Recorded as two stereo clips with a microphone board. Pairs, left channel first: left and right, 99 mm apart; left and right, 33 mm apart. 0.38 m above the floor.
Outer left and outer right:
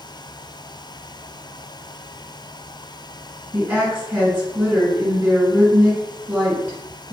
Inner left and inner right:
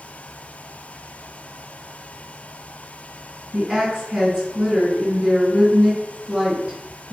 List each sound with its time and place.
3.5 s a woman speaking: 10° right (ahead or behind), 1.9 m